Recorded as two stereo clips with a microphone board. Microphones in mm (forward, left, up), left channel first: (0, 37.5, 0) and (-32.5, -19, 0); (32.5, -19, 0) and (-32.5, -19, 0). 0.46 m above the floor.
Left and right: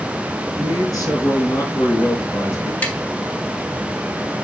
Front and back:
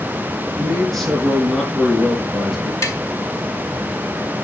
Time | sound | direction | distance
0.6 | a man speaking | 85° left | 5 m
2.8 | tapping | straight ahead | 1.8 m